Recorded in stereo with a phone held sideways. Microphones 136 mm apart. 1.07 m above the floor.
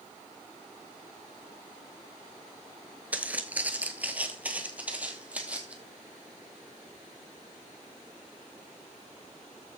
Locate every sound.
3.1 s footsteps: 10° right (ahead or behind), 1.1 m